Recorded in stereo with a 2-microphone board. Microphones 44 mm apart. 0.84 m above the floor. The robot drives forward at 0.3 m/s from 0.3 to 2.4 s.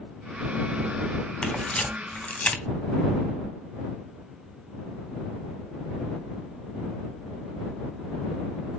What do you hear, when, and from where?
1.4 s a camera shutter: 30° left (ahead or behind), 1.4 m; by 2.6 s 35° left (ahead or behind), 1.2 m